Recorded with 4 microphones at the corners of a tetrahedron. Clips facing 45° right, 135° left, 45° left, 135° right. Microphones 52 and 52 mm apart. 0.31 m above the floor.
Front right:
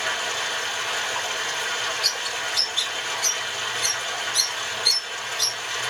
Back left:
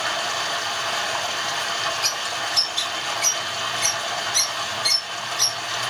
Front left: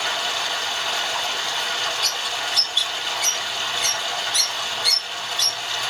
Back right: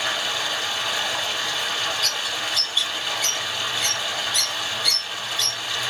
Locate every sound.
0.0 s running water: 130° left, 4 m
2.0 s a bird: 130° left, 3.5 m